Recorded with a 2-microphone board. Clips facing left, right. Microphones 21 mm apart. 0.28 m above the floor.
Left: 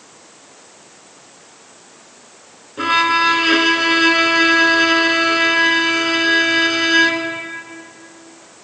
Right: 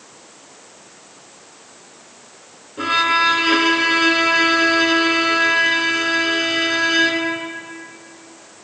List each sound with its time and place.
2.8 s a violin: 15° left (ahead or behind), 1.1 m